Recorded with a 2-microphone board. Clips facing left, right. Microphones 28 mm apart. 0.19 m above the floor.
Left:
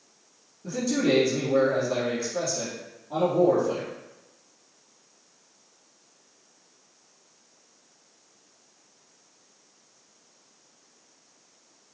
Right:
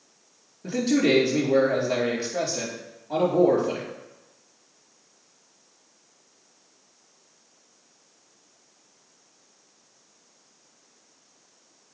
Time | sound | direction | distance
0.6 | a man speaking | 70° right (ahead or behind) | 3.5 m